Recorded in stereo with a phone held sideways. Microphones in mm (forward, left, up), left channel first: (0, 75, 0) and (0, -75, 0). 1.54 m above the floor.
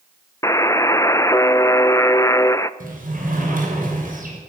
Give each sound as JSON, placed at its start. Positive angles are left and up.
{"t": 0.4, "sound": "a buzzer", "side_deg": 20, "distance_m": 0.6}
{"t": 2.8, "sound": "a sliding door", "side_deg": -65, "distance_m": 6.5}